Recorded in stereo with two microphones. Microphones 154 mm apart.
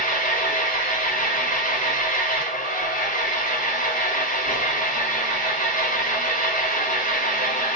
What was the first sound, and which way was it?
An engine running, 60° left (ahead or behind).